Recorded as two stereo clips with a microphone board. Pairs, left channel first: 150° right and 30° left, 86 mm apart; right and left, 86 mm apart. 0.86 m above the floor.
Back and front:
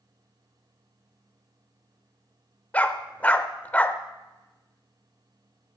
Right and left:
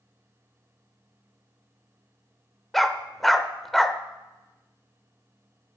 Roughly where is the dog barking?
Behind.